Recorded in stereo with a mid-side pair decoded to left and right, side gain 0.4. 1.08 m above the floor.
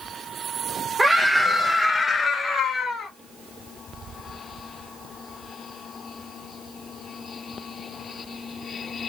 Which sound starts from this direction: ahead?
A scream, at 1.0 s.